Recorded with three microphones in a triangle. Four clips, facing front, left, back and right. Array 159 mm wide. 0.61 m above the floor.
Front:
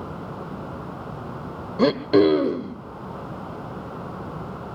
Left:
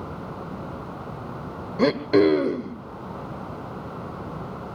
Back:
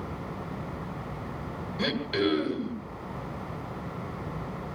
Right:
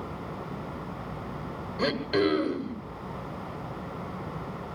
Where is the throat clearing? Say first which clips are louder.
Left 8 dB, front 11 dB; 30° left, 1.5 m.